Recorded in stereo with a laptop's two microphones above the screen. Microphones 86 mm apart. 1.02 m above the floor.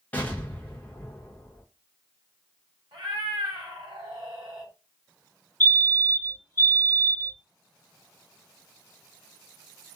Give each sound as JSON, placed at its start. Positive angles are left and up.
{"t": 0.1, "sound": "an explosion", "side_deg": 20, "distance_m": 0.6}
{"t": 2.9, "sound": "a cat meowing", "side_deg": -70, "distance_m": 1.3}
{"t": 5.6, "sound": "a fire alarm", "side_deg": 25, "distance_m": 1.1}